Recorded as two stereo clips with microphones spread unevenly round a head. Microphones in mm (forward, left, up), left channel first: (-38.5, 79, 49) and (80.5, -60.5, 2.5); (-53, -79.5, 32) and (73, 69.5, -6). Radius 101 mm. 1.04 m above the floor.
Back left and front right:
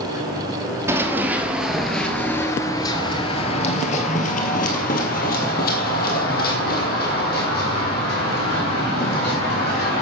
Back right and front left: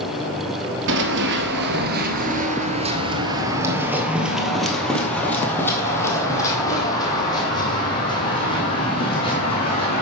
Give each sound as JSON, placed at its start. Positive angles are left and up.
{"t": 0.9, "sound": "running footsteps", "azimuth_deg": 35, "distance_m": 1.4}